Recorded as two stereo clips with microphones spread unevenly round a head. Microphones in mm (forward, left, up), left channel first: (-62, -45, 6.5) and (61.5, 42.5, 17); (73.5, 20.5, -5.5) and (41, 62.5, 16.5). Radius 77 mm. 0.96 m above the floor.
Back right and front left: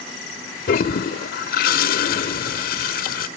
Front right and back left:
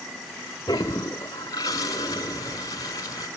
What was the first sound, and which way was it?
A toilet flushing, 115° right.